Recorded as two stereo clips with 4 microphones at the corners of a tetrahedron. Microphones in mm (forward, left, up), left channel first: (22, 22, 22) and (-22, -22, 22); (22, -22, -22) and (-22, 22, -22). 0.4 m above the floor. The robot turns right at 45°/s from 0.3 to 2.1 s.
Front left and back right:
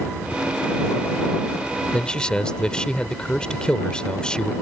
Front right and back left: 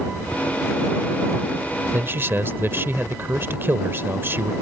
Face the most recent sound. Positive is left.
turn(degrees=115)